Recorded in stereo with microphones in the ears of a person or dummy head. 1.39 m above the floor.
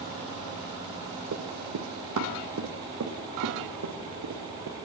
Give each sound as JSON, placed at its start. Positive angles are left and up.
{"t": 1.3, "sound": "running footsteps", "side_deg": -55, "distance_m": 3.5}